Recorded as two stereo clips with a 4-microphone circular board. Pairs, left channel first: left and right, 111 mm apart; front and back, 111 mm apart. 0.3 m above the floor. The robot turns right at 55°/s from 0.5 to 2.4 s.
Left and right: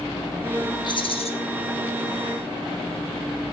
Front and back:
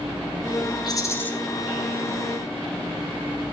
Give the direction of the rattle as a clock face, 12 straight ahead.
10 o'clock.